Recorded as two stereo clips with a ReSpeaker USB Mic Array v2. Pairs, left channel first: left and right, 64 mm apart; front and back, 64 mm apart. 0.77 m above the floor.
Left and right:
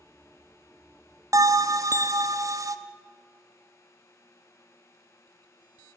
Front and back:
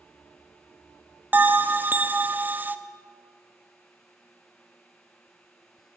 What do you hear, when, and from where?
1.3 s a bell: 120° right, 0.5 m